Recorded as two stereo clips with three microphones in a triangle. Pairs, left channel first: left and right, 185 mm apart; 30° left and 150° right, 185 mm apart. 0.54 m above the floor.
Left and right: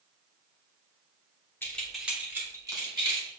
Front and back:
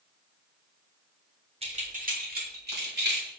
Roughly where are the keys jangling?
Behind.